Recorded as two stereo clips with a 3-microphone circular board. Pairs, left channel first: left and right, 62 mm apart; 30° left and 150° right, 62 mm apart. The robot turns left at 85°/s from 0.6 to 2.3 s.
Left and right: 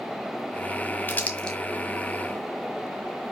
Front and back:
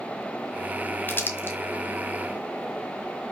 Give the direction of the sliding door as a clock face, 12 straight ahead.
No sliding door in this recording.